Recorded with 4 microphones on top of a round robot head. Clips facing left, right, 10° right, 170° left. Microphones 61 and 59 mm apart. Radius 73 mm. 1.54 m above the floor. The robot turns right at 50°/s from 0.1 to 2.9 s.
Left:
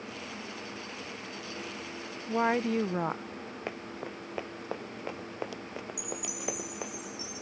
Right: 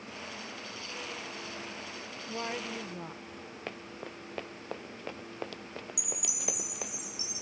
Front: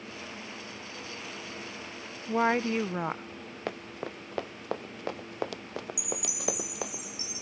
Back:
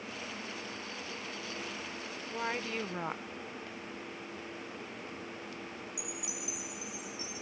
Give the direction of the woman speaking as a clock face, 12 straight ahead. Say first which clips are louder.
Left 10 dB, front 11 dB; 11 o'clock.